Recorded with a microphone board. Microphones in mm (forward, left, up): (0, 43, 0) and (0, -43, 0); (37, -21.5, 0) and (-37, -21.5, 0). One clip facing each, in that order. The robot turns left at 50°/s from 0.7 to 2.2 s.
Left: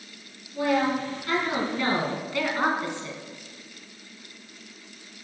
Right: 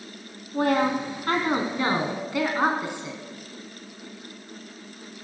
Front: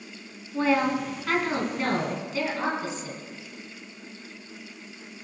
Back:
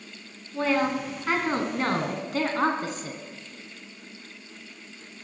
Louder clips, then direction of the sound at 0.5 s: Right 2 dB, front 1 dB; 85° right.